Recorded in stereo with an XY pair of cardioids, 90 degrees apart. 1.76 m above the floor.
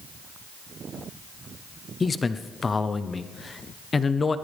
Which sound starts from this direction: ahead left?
A man speaking, at 2.0 s.